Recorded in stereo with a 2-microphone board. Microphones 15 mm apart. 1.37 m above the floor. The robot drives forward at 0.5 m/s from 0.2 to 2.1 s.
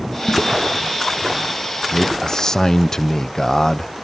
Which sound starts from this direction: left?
A man speaking, at 1.9 s.